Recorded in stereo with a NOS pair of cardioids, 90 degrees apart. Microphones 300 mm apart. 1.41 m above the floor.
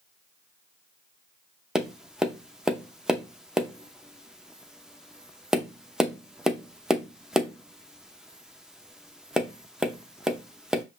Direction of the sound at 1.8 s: Straight ahead.